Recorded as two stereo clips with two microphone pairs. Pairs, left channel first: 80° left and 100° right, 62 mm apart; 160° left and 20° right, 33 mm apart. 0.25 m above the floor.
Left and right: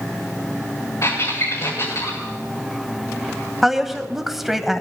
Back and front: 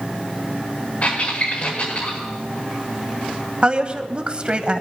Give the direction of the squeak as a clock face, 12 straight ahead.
8 o'clock.